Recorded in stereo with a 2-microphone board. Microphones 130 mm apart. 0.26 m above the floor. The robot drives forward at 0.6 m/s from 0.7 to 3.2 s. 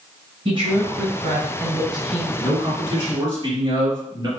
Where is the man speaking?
35° right (ahead or behind), 1.8 m; by 4.3 s 30° right (ahead or behind), 2 m.